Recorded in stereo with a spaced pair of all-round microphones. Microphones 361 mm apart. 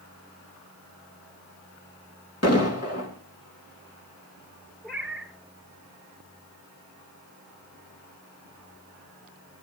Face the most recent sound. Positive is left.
turn(degrees=0)  # may be behind; listen again after turning